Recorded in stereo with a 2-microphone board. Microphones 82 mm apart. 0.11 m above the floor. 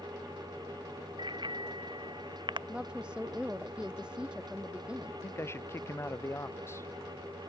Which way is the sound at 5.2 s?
30° left (ahead or behind).